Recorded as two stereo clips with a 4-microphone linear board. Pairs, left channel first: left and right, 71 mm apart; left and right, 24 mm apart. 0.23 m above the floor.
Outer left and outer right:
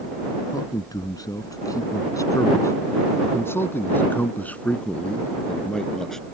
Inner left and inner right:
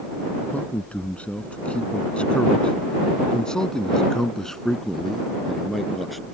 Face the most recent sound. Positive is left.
turn(degrees=5)  # may be behind; listen again after turning